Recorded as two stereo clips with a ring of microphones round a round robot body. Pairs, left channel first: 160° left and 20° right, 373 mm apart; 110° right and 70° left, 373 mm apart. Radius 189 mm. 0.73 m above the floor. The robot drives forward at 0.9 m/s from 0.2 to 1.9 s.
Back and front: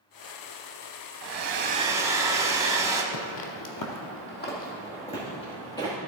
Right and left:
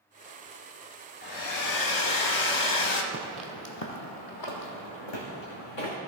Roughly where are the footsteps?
Behind left.